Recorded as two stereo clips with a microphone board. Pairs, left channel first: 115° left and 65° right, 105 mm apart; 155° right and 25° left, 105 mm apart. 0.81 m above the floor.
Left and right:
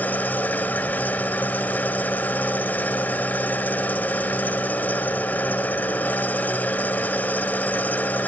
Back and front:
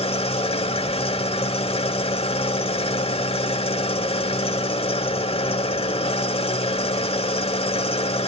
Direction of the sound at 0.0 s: 175° right.